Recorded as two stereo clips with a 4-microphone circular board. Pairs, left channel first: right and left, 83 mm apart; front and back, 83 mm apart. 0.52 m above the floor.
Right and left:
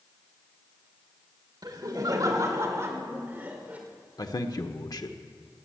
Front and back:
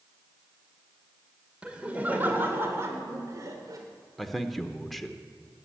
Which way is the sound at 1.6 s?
105° left.